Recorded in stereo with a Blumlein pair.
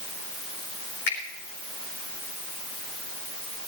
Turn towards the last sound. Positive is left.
turn(degrees=45)